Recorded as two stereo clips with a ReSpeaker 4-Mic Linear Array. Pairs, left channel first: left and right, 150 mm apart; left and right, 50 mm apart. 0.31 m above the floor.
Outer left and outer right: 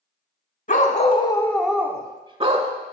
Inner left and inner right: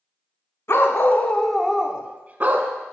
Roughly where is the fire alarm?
I don't hear a fire alarm.